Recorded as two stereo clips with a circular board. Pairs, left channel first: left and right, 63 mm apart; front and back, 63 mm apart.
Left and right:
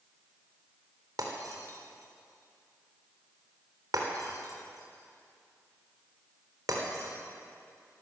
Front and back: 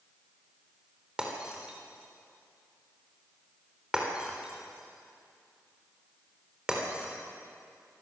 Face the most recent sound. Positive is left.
turn(degrees=-105)